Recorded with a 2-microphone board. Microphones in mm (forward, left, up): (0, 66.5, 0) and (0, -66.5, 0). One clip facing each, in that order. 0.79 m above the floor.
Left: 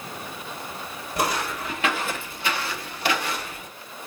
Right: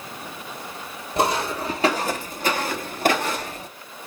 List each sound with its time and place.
1.2 s footsteps: 25° right (ahead or behind), 1.5 m; by 3.7 s 35° right (ahead or behind), 1.2 m